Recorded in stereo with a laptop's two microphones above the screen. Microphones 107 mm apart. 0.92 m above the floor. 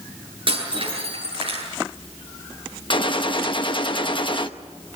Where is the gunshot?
50° left (ahead or behind), 0.9 m.